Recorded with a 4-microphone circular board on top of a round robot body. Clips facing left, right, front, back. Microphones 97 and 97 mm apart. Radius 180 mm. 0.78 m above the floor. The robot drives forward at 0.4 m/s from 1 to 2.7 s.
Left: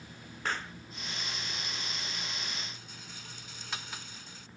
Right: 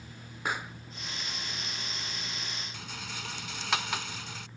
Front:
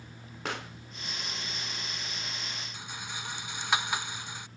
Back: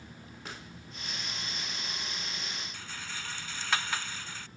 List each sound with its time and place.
0.5 s a pop: 10° right
2.7 s a rattle: 75° right